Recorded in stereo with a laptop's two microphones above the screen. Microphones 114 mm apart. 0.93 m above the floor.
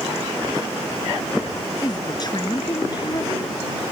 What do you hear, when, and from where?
1.8 s a woman speaking: 40° left (ahead or behind)